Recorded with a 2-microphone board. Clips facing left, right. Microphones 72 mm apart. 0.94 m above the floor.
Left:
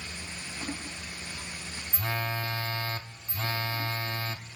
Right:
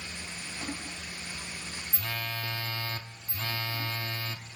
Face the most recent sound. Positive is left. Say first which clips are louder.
# left 5 dB
turn(degrees=25)  # may be behind; listen again after turning